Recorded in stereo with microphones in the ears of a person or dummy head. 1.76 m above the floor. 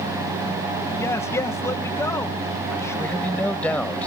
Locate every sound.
1.0 s a man speaking: 15° left (ahead or behind)
3.0 s a man speaking: 5° left (ahead or behind)